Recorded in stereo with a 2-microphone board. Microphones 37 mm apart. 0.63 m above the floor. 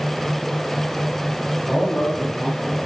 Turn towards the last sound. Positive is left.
turn(degrees=5)  # may be behind; listen again after turning